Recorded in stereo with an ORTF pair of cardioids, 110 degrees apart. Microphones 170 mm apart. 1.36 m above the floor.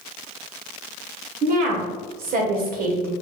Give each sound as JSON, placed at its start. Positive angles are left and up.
{"t": 1.4, "sound": "a woman speaking", "azimuth_deg": -60, "distance_m": 1.2}